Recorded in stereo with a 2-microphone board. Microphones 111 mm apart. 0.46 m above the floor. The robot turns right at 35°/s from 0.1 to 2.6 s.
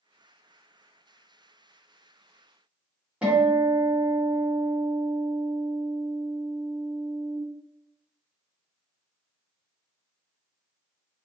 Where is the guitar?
10° right (ahead or behind), 1.7 m.